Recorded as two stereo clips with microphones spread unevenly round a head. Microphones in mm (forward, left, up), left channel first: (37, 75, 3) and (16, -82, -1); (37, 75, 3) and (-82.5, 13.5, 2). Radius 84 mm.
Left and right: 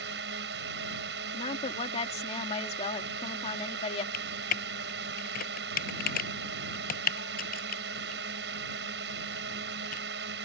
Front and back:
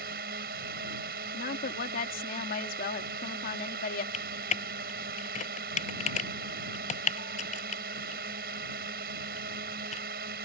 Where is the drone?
125° right.